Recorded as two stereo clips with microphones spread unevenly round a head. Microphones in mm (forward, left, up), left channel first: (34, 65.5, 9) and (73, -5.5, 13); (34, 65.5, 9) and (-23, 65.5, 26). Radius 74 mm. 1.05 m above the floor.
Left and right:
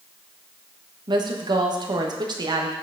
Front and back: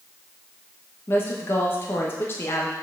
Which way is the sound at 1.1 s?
35° right.